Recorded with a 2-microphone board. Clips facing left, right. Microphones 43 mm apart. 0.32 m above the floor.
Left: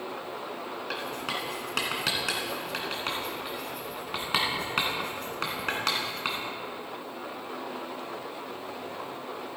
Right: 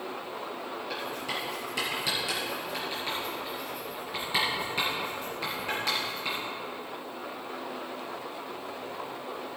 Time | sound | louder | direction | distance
0.9 | writing | left 2 dB | 65° left (ahead or behind) | 2 m